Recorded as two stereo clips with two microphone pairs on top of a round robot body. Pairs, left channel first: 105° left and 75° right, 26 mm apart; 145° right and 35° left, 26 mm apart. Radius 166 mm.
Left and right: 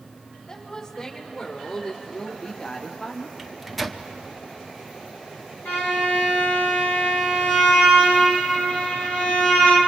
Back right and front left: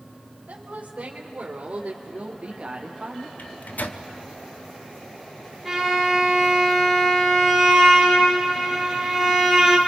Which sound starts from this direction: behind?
A microwave, at 3.4 s.